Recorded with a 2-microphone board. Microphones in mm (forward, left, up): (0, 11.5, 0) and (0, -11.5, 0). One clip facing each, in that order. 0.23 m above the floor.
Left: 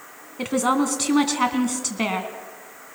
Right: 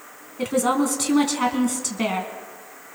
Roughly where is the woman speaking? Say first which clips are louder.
Even; centre.